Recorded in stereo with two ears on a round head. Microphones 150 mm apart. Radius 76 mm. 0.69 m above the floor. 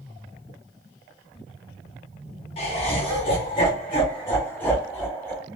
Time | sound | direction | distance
2.6 | laughter | 35° left (ahead or behind) | 0.8 m